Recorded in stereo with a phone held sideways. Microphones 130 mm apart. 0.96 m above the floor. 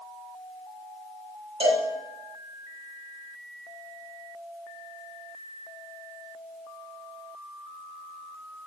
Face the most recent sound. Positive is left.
turn(degrees=-40)  # may be behind; listen again after turning